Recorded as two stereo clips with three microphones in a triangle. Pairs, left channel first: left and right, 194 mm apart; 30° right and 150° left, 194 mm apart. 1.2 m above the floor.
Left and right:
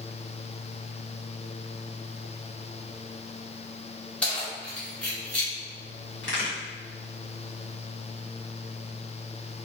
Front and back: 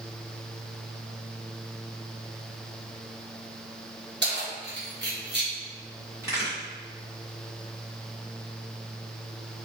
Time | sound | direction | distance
4.2 | keys jangling | 175° left | 0.9 m
6.2 | a crack | 75° left | 1.3 m